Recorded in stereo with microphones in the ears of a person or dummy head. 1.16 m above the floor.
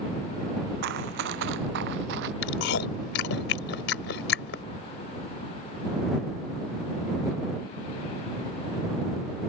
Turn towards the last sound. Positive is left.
turn(degrees=75)  # may be behind; listen again after turning